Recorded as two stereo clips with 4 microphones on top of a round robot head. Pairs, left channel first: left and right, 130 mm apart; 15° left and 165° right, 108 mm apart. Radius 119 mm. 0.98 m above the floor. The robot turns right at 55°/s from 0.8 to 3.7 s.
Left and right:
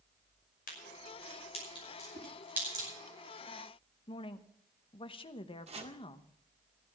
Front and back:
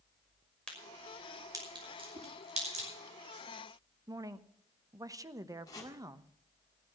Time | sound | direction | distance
0.7 | a crack | 95° left | 5.5 m
2.1 | a whoosh | 140° right | 3.5 m
4.1 | a woman speaking | 135° left | 1.0 m
5.7 | chopping | 50° right | 1.8 m